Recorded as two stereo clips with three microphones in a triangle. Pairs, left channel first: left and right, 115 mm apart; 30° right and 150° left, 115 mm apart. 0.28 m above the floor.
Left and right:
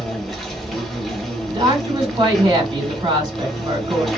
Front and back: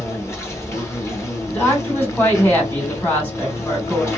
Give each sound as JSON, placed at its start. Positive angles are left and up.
{"t": 0.0, "sound": "an insect", "azimuth_deg": 5, "distance_m": 1.3}
{"t": 1.5, "sound": "a woman speaking", "azimuth_deg": -95, "distance_m": 2.5}